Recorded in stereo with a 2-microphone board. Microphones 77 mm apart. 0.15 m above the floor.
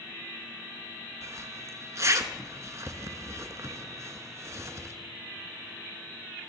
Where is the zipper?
45° right (ahead or behind), 0.7 m.